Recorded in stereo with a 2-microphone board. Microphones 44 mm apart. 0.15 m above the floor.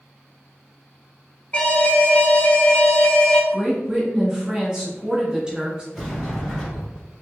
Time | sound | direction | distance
1.5 | an alarm | 30° left (ahead or behind) | 0.8 m
3.5 | a woman speaking | 10° right (ahead or behind) | 1.7 m
5.9 | a sliding door | 5° left (ahead or behind) | 1.8 m